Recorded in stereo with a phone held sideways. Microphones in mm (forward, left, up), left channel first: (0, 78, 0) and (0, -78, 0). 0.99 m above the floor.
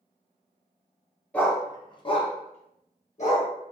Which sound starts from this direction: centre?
A dog barking, at 1.3 s.